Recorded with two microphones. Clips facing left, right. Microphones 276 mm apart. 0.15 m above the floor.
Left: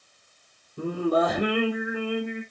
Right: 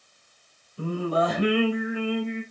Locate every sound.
0.8 s singing: 50° left (ahead or behind), 3 m